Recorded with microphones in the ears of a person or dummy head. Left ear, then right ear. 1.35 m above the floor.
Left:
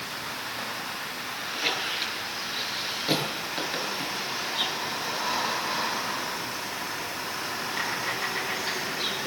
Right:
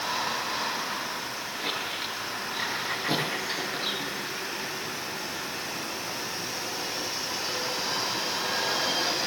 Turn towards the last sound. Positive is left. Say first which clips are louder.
# left 5 dB
turn(degrees=20)  # may be behind; listen again after turning